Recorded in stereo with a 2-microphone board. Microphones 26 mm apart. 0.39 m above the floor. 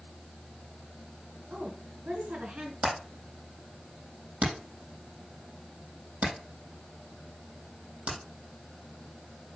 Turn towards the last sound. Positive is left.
turn(degrees=-90)